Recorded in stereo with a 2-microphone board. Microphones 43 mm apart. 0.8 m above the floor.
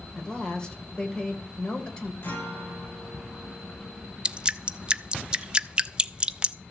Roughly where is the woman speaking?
Centre.